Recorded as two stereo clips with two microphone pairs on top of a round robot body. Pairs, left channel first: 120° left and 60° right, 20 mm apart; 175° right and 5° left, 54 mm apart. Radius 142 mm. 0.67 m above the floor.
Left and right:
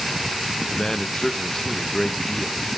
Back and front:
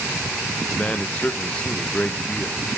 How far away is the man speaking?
About 1.0 m.